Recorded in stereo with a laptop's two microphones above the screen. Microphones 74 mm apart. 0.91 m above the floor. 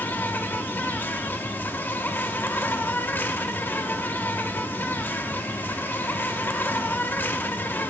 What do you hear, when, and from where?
0.0 s an insect: 30° left (ahead or behind), 0.7 m